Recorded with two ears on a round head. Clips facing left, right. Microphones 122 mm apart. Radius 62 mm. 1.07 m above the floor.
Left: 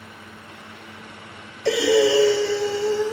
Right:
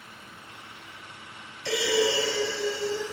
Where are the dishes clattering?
No dishes clattering in this recording.